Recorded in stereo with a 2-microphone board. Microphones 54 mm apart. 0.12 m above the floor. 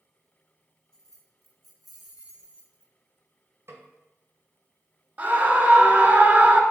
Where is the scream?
25° right (ahead or behind), 1.3 m.